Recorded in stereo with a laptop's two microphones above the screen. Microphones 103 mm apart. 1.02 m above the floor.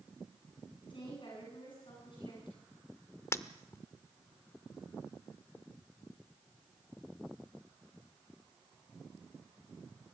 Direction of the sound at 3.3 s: 25° left (ahead or behind).